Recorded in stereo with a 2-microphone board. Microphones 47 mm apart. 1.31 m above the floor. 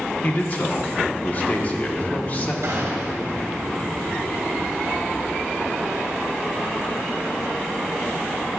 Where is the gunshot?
65° right (ahead or behind), 1.4 m.